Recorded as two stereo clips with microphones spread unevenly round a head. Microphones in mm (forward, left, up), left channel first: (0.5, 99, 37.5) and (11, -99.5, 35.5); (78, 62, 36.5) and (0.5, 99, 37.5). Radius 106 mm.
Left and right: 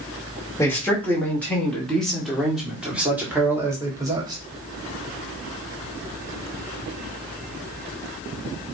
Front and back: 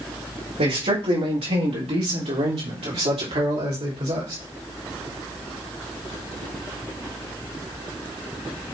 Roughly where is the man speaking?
Behind.